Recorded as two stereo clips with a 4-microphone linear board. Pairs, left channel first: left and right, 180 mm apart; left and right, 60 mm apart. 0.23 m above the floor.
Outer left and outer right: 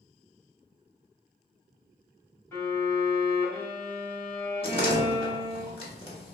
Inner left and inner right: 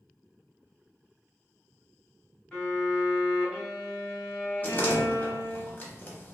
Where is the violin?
15° left (ahead or behind), 1.5 m.